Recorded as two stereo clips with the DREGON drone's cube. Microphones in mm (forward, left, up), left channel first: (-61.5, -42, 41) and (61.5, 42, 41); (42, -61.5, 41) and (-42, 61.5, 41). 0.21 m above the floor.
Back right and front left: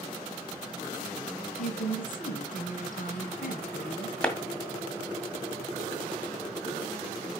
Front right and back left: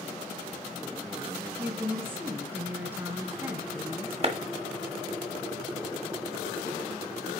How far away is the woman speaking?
About 2.5 m.